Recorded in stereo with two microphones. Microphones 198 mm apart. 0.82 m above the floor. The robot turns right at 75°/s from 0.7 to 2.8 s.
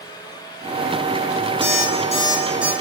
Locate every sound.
1.6 s an alarm clock: 110° left, 3 m; by 2.7 s 165° right, 3 m